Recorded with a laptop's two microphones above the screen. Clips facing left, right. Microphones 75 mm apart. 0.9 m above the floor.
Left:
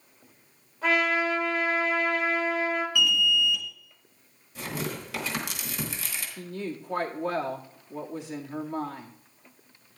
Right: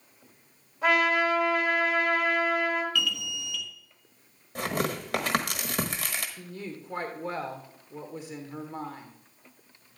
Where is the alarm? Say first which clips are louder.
Left 7 dB; 15° left (ahead or behind), 1.3 m.